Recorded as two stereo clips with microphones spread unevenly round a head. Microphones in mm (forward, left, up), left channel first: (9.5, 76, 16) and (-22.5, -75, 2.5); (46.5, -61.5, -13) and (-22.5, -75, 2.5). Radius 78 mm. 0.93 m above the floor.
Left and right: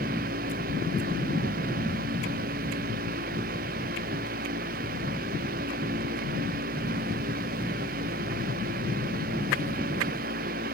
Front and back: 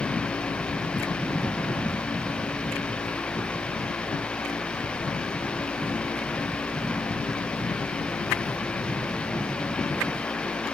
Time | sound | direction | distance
0.0 | a fan | 65° right | ?